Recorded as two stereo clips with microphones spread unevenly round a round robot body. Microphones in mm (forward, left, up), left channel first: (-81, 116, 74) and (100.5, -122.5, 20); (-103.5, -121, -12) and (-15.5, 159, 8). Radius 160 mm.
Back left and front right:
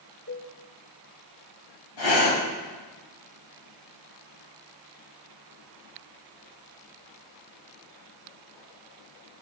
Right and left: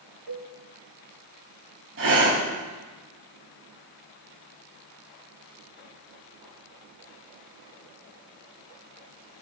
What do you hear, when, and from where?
0.3 s a cowbell: 85° left, 3.5 m
2.0 s breathing: 120° left, 6 m